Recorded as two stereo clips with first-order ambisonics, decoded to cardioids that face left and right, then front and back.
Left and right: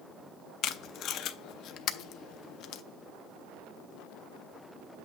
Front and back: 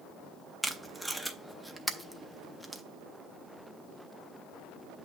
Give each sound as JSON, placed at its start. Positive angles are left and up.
{"t": 0.6, "sound": "tape being pulled", "azimuth_deg": 90, "distance_m": 0.6}